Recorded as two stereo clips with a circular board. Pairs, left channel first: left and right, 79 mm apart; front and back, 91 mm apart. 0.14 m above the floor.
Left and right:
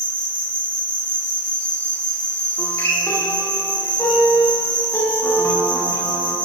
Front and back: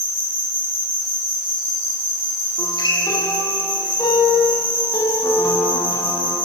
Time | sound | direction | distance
0.0 | an insect | 20° left | 9 m
2.6 | a guitar | 35° left | 9 m